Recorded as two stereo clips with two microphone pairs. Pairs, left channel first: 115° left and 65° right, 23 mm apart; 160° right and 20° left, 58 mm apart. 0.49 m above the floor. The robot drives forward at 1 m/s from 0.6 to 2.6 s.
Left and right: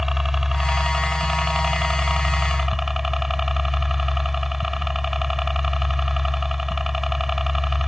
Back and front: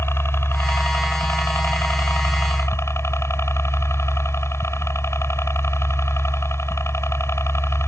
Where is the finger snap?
No finger snap in this recording.